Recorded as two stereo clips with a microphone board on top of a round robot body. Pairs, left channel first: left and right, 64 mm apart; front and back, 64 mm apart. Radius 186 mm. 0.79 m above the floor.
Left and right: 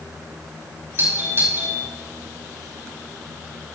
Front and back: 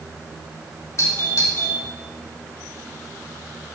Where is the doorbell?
35° right, 6 m.